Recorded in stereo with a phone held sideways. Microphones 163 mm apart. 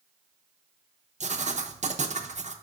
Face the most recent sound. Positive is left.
turn(degrees=-45)  # may be behind; listen again after turning